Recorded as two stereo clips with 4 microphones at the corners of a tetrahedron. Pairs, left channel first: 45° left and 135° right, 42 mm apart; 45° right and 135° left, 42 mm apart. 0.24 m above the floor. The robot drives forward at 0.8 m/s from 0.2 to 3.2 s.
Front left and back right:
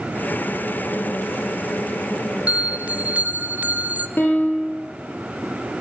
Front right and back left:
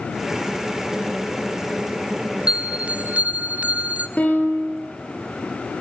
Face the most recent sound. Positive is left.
turn(degrees=5)